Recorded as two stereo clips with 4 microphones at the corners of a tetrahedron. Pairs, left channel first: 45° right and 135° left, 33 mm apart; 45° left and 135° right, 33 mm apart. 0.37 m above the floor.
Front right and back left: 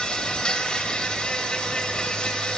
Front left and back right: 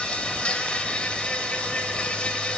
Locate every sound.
0.0 s an insect: straight ahead, 1.6 m